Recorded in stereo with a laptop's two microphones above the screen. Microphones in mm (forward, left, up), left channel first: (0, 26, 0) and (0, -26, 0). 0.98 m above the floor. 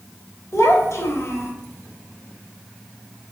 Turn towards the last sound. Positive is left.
turn(degrees=70)  # may be behind; listen again after turning